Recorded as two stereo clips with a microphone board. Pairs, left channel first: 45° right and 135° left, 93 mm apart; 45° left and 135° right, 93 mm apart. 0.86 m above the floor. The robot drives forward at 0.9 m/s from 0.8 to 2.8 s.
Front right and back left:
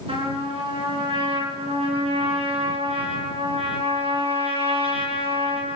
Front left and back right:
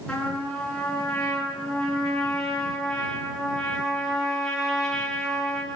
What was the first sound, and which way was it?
A trumpet, 125° left.